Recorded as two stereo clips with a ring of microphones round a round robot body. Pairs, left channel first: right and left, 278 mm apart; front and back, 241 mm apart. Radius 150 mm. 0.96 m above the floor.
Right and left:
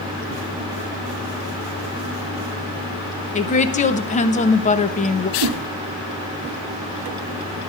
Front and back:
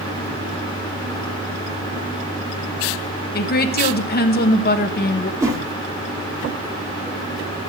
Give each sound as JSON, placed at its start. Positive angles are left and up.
{"t": 3.3, "sound": "a woman speaking", "azimuth_deg": -35, "distance_m": 0.9}
{"t": 5.4, "sound": "a whoosh", "azimuth_deg": 100, "distance_m": 1.1}